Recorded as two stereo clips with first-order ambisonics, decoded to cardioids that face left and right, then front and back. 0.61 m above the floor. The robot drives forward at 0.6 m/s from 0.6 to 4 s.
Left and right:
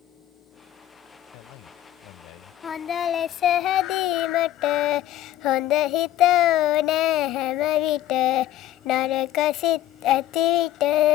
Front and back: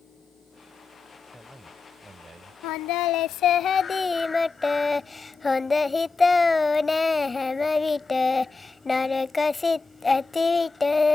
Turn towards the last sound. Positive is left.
turn(degrees=75)